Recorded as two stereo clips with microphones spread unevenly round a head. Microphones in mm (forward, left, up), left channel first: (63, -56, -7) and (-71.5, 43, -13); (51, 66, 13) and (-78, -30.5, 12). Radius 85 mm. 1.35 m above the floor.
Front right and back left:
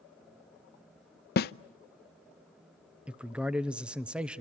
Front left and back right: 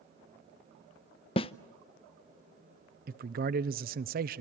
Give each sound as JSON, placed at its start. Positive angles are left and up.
{"t": 1.4, "sound": "a snare drum", "azimuth_deg": -20, "distance_m": 0.5}
{"t": 3.1, "sound": "a man speaking", "azimuth_deg": -135, "distance_m": 0.8}